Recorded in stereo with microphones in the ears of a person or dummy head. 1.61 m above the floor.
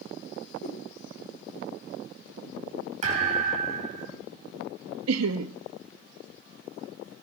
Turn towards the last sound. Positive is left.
turn(degrees=-85)